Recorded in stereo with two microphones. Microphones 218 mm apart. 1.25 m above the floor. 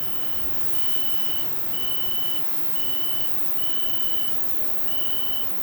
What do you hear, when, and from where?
0.0 s an insect: 15° right (ahead or behind), 1.0 m